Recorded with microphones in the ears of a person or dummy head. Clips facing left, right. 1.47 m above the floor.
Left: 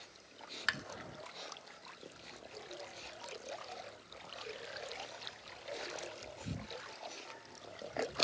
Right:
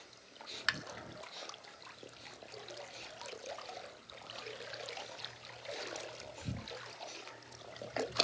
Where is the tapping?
Centre (ahead or behind), 0.9 m.